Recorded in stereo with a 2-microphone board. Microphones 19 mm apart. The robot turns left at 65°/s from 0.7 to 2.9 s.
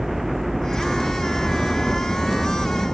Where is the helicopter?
10° right (ahead or behind); by 2.9 s 50° left (ahead or behind).